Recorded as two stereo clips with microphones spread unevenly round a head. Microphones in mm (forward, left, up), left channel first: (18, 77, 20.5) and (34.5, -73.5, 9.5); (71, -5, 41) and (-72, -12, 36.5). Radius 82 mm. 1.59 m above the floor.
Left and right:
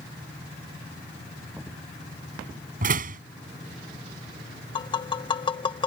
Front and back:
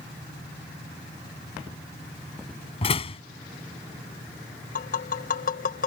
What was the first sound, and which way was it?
A door slam, 50° right.